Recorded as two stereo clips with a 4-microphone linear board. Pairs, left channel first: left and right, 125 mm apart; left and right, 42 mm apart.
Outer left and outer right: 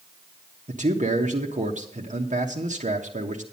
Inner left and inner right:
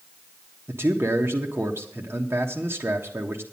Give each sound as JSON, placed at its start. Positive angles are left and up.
{"t": 0.7, "sound": "a man speaking", "side_deg": -70, "distance_m": 1.3}